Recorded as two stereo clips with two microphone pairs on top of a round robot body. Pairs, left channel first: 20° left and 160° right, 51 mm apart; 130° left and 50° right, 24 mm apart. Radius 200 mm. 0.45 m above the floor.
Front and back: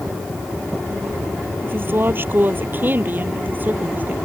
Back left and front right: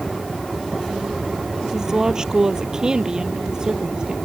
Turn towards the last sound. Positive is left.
turn(degrees=-105)